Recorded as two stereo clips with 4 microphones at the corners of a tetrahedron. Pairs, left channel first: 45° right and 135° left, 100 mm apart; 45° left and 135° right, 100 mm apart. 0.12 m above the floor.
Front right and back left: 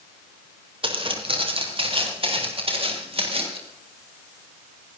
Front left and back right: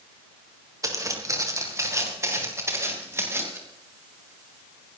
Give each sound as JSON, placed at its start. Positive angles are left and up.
{"t": 0.8, "sound": "footsteps", "azimuth_deg": 170, "distance_m": 4.0}